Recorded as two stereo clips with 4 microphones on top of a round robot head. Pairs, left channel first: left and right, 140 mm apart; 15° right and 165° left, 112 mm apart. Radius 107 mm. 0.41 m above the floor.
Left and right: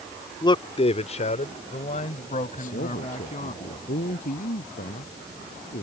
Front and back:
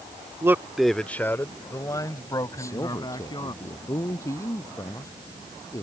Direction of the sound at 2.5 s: 50° left.